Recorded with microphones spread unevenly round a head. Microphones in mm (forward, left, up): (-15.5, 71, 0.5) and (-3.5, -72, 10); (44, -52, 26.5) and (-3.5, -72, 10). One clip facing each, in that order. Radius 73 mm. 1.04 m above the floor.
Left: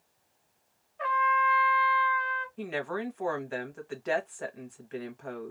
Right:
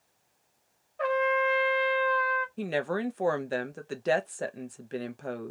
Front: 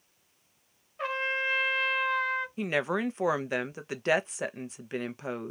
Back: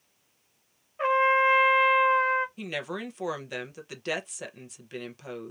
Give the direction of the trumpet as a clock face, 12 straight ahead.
4 o'clock.